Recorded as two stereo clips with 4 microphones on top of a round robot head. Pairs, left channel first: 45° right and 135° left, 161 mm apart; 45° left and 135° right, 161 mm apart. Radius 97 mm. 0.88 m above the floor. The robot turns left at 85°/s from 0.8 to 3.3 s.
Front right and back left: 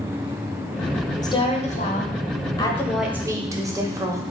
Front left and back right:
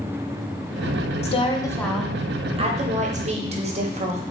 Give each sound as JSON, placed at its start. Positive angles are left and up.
{"t": 1.2, "sound": "a woman speaking", "azimuth_deg": 15, "distance_m": 0.7}